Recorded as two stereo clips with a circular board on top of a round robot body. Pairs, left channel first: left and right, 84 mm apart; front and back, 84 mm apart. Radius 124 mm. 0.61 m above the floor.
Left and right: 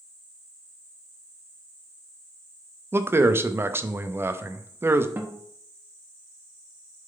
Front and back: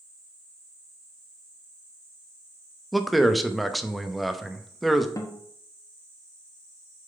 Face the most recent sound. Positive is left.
turn(degrees=-35)